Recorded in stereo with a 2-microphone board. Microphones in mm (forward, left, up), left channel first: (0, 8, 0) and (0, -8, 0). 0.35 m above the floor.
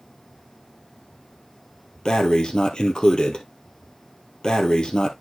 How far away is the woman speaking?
I don't hear a woman speaking.